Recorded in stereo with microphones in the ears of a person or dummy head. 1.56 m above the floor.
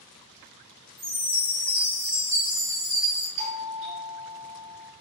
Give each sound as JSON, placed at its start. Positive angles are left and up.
{"t": 1.0, "sound": "a chime", "side_deg": -15, "distance_m": 0.6}
{"t": 3.4, "sound": "a doorbell", "side_deg": -55, "distance_m": 1.6}